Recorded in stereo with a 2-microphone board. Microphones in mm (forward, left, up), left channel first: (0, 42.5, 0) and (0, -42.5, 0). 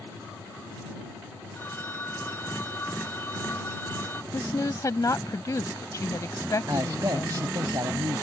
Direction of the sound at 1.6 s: 25° left (ahead or behind).